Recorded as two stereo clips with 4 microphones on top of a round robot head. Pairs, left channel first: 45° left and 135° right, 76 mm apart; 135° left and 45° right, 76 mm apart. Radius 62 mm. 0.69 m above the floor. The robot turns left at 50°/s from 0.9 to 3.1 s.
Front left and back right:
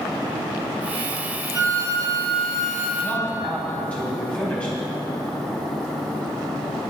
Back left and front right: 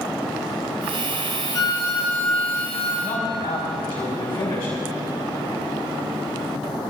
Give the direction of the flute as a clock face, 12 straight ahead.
6 o'clock.